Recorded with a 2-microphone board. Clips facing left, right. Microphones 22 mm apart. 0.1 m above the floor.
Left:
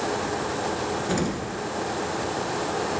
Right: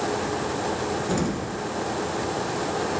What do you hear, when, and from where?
1.1 s an explosion: 15° left (ahead or behind), 1.6 m